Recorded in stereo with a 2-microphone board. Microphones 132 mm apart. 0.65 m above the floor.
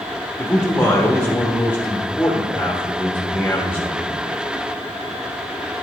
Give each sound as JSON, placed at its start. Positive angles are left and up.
{"t": 0.4, "sound": "a man speaking", "side_deg": 15, "distance_m": 0.9}